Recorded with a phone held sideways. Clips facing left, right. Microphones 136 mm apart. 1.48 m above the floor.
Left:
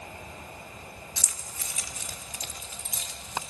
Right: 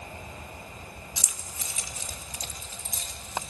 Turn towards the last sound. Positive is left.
turn(degrees=-45)  # may be behind; listen again after turning